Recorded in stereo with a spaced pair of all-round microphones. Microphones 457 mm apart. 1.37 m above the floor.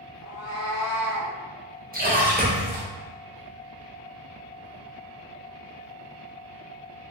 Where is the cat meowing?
50° left (ahead or behind), 1.5 m; by 1.3 s 40° left (ahead or behind), 1.6 m.